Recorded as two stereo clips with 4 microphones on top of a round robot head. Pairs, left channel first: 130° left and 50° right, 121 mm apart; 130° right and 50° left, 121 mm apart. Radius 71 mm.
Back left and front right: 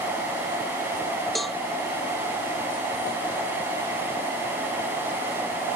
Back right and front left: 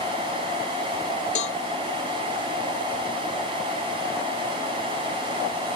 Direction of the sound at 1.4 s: 140° right.